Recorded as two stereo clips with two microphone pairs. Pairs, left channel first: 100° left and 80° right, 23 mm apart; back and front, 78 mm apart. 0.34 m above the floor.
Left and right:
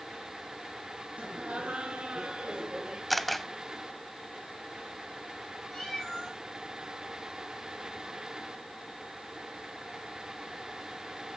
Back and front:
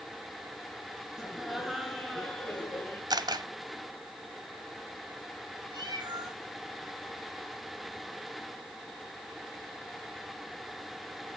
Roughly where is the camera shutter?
Ahead.